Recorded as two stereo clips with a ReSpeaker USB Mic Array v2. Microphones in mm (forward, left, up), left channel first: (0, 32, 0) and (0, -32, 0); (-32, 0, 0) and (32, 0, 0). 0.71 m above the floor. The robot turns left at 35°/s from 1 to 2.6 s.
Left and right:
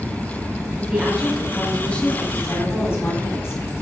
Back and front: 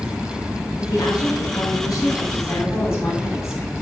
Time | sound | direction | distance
0.8 | a woman speaking | 165° right | 2 m